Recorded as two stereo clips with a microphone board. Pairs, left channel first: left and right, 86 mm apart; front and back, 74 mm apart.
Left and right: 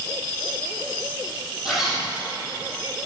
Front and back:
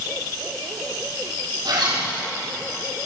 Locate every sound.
1.6 s a zipper: 175° right, 5.5 m